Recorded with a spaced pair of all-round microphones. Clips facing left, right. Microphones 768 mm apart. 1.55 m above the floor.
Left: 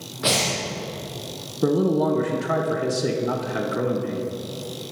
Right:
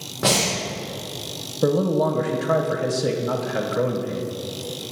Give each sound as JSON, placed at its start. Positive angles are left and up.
{"t": 0.2, "sound": "breathing", "side_deg": -70, "distance_m": 2.0}
{"t": 1.6, "sound": "a man speaking", "side_deg": -10, "distance_m": 1.2}